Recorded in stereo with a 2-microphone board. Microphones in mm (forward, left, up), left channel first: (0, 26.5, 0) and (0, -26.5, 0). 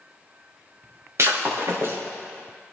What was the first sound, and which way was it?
Breaking glass, 60° right (ahead or behind).